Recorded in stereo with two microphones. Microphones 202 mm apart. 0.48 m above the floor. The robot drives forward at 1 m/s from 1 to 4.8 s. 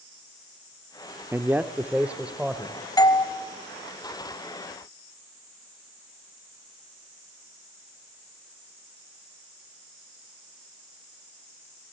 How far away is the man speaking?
About 0.7 m.